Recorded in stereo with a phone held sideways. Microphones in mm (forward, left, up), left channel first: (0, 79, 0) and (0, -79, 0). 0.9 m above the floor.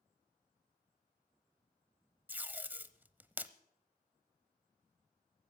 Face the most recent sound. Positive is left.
turn(degrees=-10)  # may be behind; listen again after turning